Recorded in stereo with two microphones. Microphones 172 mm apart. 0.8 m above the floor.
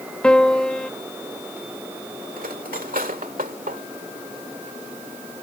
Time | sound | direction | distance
0.2 | a piano | 5° left (ahead or behind) | ?
2.4 | cutlery clinking | 55° right (ahead or behind) | ?